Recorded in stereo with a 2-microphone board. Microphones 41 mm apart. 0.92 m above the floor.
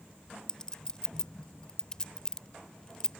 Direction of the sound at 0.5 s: 20° left (ahead or behind).